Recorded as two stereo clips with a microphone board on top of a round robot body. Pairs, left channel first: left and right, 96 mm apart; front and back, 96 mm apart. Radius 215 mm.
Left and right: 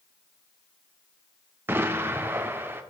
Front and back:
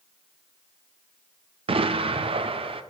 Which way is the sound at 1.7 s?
160° right.